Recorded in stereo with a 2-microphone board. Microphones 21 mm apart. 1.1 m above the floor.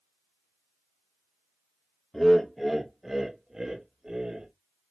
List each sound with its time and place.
2.1 s laughter: 10° left (ahead or behind), 0.9 m; by 4.5 s 35° right (ahead or behind), 1.8 m